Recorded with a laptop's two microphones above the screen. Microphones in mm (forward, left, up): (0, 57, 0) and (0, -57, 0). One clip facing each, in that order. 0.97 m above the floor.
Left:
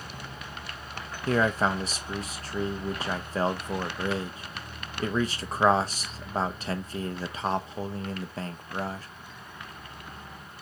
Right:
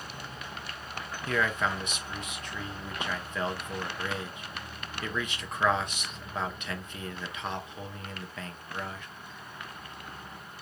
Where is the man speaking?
35° left (ahead or behind), 0.8 m.